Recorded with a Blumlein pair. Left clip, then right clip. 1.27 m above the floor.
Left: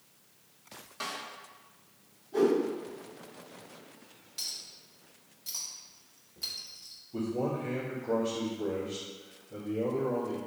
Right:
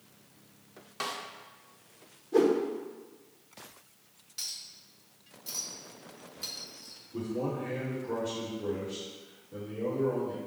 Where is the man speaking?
35° left, 1.8 m.